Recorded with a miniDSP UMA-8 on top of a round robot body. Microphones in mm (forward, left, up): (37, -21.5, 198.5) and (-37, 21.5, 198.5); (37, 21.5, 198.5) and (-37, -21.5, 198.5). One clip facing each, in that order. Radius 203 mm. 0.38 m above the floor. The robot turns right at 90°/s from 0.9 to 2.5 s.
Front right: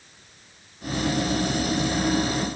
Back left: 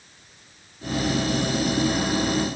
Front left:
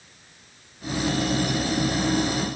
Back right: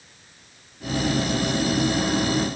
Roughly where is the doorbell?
I don't hear a doorbell.